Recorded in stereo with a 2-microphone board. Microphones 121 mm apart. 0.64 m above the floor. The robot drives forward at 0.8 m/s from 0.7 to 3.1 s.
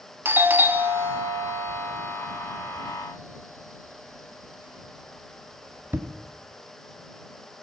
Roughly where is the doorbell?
Centre.